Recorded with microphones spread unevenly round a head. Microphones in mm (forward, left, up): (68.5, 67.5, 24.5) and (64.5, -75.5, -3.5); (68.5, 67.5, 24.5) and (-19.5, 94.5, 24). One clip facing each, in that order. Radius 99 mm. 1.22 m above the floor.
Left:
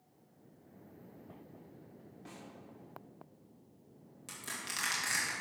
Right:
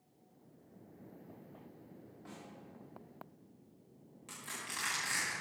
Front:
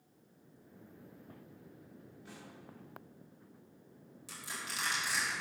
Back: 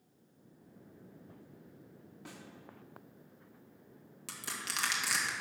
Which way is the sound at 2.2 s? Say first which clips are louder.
Even, back 3 dB; 160° left.